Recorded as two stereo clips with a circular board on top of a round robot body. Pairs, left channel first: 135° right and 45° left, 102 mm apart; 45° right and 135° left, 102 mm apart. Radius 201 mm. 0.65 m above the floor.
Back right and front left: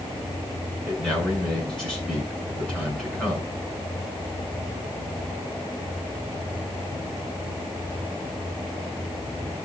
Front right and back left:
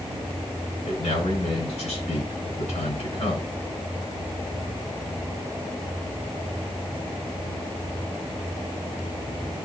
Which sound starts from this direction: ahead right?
A man speaking, at 0.8 s.